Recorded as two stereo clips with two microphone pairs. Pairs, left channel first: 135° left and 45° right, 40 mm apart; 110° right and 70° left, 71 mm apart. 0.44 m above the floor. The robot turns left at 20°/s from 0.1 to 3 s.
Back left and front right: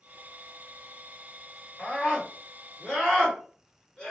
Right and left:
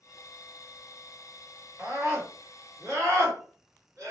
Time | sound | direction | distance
1.8 | a scream | 100° left | 1.8 m